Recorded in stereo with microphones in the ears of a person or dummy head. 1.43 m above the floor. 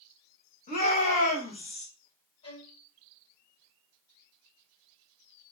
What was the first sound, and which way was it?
A shout, 40° left (ahead or behind).